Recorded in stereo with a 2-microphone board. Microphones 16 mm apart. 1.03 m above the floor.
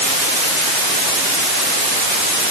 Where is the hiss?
I don't hear a hiss.